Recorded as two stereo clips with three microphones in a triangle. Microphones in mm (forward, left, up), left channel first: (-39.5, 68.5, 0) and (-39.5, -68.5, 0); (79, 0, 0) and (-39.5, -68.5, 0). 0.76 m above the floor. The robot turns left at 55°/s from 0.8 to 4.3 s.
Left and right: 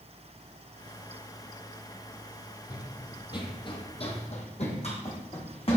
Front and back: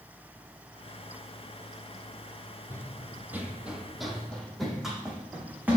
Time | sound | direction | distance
2.7 | running footsteps | 145° left | 1.1 m